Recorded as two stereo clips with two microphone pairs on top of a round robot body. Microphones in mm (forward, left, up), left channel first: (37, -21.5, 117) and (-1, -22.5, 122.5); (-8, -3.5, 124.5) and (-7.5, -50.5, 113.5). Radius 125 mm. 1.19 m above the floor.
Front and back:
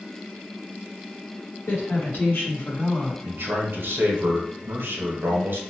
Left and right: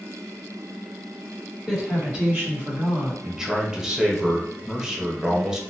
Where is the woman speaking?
Straight ahead, 1.8 m; by 3.1 s 65° right, 1.6 m.